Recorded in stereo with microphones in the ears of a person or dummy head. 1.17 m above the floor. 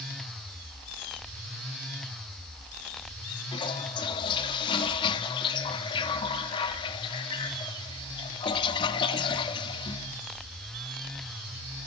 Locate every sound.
3.5 s a toilet flushing: 30° left (ahead or behind), 1.6 m